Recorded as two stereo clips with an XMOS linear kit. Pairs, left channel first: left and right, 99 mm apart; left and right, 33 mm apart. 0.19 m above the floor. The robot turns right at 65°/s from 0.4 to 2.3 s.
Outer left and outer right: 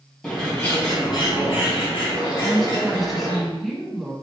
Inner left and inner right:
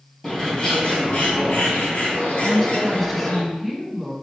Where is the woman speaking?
Centre (ahead or behind), 1.0 m.